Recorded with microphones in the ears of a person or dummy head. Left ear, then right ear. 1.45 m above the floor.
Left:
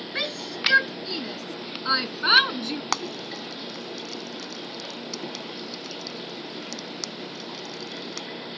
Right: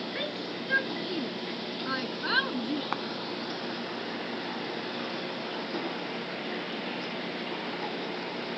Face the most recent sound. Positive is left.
turn(degrees=80)